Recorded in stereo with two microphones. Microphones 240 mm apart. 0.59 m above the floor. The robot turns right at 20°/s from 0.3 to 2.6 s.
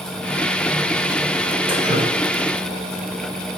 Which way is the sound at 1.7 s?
25° right (ahead or behind).